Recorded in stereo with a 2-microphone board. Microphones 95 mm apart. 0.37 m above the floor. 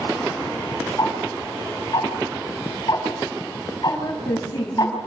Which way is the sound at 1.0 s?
45° left (ahead or behind).